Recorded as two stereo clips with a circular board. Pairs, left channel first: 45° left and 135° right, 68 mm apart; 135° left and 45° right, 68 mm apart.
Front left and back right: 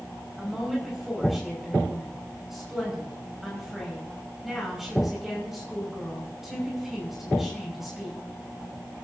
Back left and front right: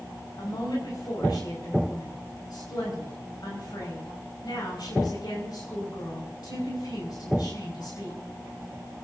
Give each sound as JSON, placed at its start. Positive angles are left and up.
{"t": 0.4, "sound": "a woman speaking", "azimuth_deg": 140, "distance_m": 6.0}